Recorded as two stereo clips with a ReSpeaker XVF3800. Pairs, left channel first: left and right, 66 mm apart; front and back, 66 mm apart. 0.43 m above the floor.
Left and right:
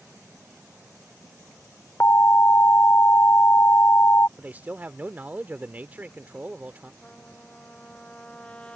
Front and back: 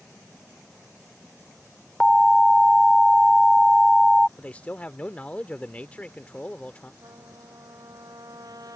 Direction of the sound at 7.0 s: 165° left.